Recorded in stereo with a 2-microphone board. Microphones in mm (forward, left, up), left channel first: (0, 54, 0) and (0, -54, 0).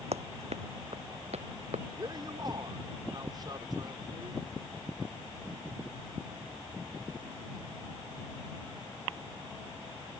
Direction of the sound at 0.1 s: 70° right (ahead or behind).